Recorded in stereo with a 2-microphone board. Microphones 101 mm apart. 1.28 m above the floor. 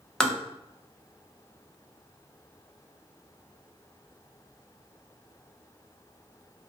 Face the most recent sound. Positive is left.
turn(degrees=5)  # may be behind; listen again after turning